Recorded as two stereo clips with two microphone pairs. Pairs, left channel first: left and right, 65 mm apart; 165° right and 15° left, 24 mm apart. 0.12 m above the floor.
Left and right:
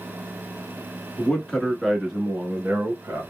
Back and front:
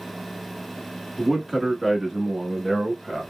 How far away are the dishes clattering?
I don't hear dishes clattering.